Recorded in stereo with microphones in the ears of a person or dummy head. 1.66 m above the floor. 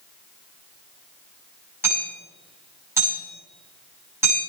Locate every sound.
1.8 s hammering: 15° right (ahead or behind), 8.5 m